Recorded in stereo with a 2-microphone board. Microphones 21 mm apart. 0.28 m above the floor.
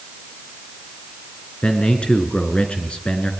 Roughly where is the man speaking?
Left.